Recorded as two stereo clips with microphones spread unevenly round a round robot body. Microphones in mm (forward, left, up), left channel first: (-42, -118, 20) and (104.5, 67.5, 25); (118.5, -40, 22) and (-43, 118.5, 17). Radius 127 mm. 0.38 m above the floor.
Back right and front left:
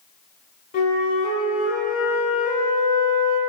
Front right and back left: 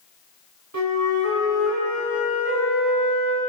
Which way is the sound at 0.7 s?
170° left.